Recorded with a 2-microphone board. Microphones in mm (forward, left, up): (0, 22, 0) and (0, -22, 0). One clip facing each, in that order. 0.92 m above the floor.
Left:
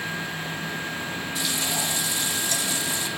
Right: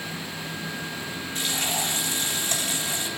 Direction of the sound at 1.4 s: 50° right (ahead or behind).